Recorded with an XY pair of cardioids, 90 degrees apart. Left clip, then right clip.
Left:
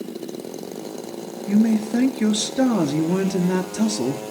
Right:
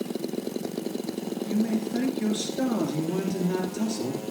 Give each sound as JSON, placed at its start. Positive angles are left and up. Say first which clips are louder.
{"t": 1.5, "sound": "a man speaking", "louder": "left 9 dB", "azimuth_deg": 70, "distance_m": 2.0}